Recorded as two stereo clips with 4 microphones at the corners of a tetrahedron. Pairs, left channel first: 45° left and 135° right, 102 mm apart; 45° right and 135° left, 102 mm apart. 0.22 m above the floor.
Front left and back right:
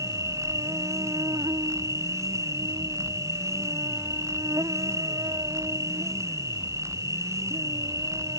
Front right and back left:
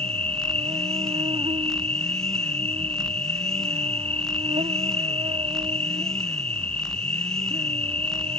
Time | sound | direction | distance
0.0 | an insect | 165° left | ?